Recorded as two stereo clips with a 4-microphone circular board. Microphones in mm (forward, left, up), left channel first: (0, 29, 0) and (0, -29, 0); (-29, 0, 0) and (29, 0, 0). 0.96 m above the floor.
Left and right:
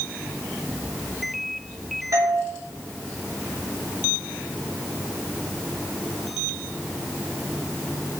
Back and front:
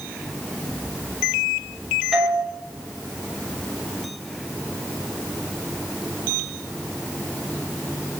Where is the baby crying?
I don't hear a baby crying.